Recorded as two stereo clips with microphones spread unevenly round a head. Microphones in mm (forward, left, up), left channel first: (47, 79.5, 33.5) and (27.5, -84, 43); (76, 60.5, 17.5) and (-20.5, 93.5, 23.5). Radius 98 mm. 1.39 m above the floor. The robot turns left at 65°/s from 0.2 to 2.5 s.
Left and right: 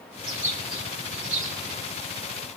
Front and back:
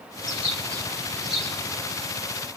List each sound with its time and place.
0.2 s a bird: 35° right, 2 m; by 1.8 s 140° right, 2 m